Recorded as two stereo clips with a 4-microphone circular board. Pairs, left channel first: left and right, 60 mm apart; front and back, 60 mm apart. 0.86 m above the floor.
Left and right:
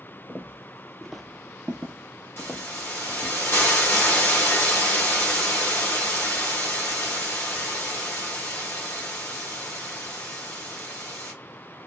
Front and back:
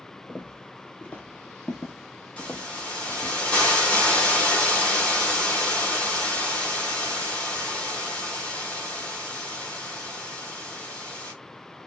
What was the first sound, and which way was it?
Footsteps, 35° left.